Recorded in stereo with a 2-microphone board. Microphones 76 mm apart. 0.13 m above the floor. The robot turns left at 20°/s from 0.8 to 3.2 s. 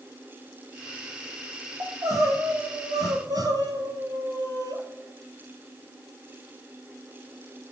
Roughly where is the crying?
Right.